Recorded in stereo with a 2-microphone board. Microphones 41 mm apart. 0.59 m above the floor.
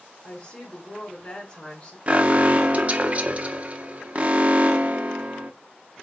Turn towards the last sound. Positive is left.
turn(degrees=-35)  # may be behind; listen again after turning